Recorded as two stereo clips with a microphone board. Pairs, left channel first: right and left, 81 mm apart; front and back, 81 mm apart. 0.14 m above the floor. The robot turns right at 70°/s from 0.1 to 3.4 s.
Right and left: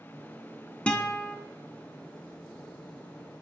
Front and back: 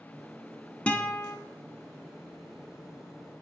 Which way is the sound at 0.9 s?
45° right.